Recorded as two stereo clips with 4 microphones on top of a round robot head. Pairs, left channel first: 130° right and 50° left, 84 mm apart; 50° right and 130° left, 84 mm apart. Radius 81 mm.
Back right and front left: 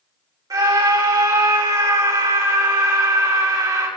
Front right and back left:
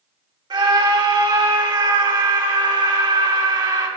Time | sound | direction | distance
0.5 | a scream | 95° left | 3.5 m